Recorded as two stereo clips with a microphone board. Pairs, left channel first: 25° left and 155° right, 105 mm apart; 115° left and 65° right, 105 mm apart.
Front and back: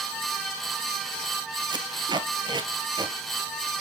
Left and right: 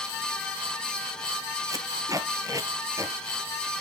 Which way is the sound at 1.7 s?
120° right.